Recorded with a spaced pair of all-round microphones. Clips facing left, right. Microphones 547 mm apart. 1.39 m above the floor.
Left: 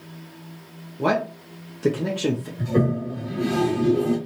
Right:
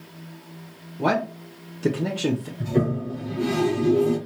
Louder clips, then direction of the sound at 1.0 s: Left 1 dB; 5° right (ahead or behind).